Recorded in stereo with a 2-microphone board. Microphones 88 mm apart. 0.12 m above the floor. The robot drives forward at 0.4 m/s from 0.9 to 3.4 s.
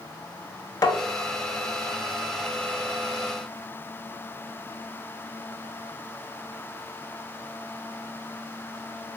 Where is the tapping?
45° left (ahead or behind), 0.6 m.